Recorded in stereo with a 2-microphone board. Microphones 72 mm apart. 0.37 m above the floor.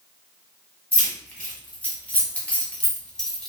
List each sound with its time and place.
0.9 s keys jangling: 25° left (ahead or behind), 1.2 m; by 3.5 s 5° left (ahead or behind), 0.8 m